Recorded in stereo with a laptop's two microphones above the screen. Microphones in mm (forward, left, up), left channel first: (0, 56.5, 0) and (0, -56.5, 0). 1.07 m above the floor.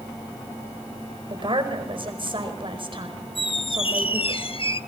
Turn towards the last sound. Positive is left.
turn(degrees=50)  # may be behind; listen again after turning